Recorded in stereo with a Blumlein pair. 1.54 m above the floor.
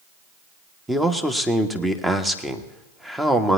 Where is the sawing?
No sawing in this recording.